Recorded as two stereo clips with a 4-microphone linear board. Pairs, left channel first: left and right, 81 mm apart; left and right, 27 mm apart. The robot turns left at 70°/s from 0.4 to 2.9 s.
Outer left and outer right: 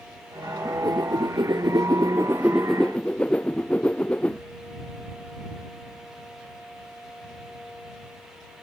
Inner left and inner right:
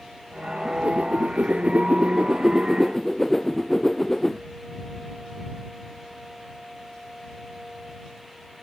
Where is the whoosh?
35° right; by 4.4 s 165° left.